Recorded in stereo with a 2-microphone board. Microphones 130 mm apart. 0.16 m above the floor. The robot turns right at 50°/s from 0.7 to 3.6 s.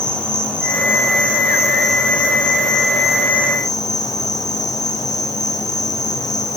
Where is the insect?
5° left, 5 m; by 6.6 s 150° left, 5 m.